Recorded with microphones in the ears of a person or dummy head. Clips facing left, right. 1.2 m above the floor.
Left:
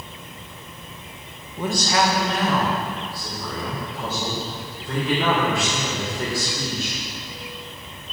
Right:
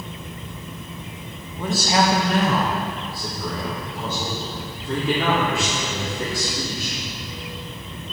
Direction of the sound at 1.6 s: 10° left (ahead or behind).